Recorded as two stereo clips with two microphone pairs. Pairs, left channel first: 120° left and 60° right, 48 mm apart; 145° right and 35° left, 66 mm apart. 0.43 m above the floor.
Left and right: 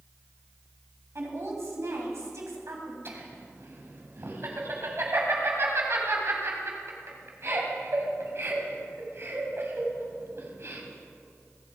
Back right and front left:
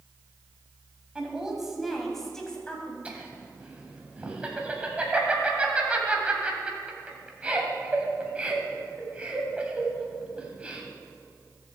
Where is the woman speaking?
40° right, 3 m; by 3.0 s 70° right, 3 m.